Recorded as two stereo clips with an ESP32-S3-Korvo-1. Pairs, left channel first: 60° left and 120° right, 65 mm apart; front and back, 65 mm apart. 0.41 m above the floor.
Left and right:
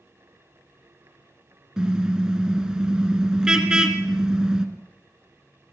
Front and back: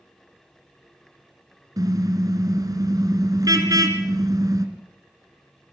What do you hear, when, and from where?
1.8 s a car horn: 160° left, 2.5 m